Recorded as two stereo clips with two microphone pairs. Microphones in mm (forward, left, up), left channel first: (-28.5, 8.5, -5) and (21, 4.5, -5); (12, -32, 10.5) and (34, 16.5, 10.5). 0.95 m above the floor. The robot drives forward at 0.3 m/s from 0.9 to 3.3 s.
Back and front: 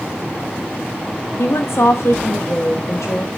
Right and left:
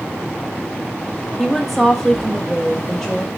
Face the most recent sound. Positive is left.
turn(degrees=170)